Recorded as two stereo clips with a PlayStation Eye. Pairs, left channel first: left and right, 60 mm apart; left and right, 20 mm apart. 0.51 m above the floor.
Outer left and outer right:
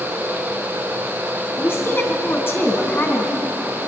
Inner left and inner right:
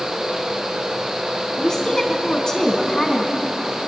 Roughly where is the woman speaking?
Left.